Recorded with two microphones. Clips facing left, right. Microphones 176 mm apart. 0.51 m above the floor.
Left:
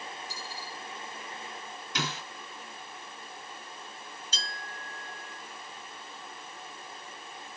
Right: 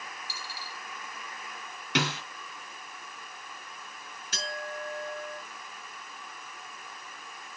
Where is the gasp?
No gasp in this recording.